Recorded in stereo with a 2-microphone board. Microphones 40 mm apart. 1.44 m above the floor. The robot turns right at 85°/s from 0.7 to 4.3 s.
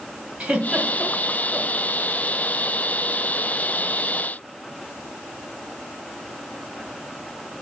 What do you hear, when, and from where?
0.4 s a giggle: 35° right (ahead or behind), 2.5 m; by 1.7 s 40° left (ahead or behind), 2.5 m